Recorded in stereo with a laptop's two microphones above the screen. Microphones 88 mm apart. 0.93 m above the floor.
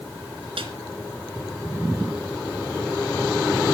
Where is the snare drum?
85° right, 4 m.